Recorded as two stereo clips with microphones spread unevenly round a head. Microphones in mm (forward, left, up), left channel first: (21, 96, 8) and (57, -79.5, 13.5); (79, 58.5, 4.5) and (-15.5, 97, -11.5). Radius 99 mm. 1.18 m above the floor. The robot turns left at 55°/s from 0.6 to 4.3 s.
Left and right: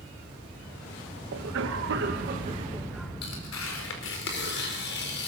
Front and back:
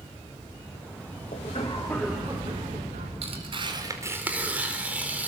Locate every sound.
1.3 s a cough: 75° right, 1.5 m; by 3.1 s 170° right, 1.5 m
3.2 s tearing paper: 140° left, 4.5 m; by 5.3 s 80° left, 4.5 m